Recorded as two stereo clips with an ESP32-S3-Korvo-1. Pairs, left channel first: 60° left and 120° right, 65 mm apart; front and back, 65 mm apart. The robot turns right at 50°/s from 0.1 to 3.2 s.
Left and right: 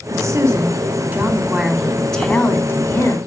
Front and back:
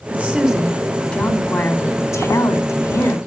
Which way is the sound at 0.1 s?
120° right.